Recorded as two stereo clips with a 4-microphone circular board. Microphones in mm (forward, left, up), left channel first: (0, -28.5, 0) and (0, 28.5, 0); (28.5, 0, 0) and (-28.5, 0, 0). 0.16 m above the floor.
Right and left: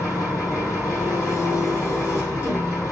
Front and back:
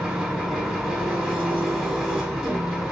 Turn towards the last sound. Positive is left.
turn(degrees=-95)